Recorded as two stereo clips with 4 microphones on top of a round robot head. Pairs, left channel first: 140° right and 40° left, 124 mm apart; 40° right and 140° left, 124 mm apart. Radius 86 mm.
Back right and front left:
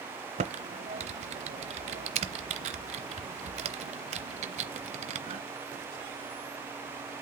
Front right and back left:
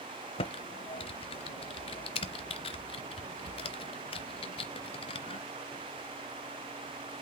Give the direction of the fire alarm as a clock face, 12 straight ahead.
I don't hear a fire alarm.